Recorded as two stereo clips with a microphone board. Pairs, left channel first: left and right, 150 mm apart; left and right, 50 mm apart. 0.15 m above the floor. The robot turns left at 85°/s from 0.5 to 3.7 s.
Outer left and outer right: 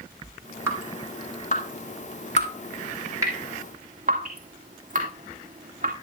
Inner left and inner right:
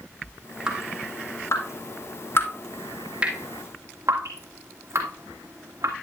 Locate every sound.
0.7 s dripping: 15° right (ahead or behind), 2.5 m; by 5.9 s 60° right (ahead or behind), 2.5 m